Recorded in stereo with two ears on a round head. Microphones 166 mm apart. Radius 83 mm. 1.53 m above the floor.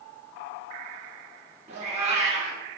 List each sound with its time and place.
1.7 s a cat meowing: 35° right (ahead or behind), 1.0 m